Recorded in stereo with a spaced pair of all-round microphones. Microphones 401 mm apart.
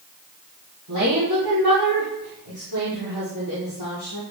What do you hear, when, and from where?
0.9 s a woman speaking: 65° right (ahead or behind), 3.5 m; by 4.2 s 80° right, 3.5 m